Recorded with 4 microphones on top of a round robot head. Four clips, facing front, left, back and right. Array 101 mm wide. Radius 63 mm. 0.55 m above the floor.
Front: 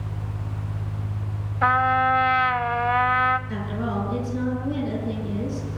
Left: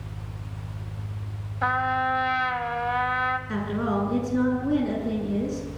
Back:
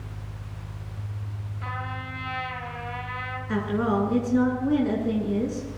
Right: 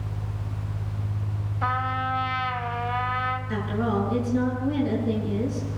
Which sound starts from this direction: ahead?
A trumpet, at 1.6 s.